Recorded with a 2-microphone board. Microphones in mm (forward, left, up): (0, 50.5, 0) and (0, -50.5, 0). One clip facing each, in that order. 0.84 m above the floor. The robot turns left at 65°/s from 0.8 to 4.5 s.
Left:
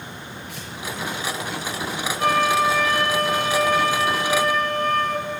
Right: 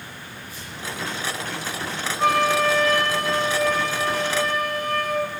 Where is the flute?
160° right, 1.7 m; by 5.3 s 50° left, 1.7 m.